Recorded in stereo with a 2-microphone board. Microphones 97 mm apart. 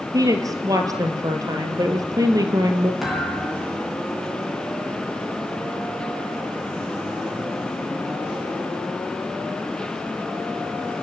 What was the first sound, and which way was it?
A woman speaking, 35° right (ahead or behind).